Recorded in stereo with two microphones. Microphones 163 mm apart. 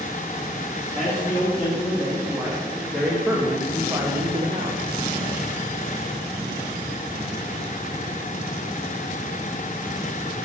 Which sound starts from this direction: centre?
A man speaking, at 0.9 s.